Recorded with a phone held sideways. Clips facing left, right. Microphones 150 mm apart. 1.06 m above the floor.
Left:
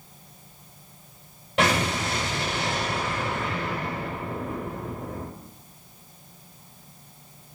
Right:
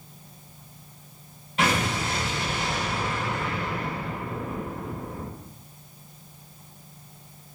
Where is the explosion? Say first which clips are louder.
Left 2 dB; 85° left, 1.9 m.